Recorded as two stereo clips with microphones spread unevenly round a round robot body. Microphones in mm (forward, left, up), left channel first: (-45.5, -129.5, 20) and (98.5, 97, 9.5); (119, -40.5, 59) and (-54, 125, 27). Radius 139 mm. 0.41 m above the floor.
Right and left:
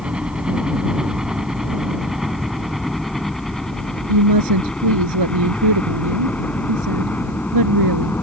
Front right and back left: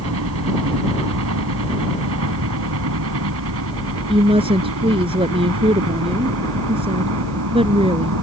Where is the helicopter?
145° left; by 8.2 s 155° left.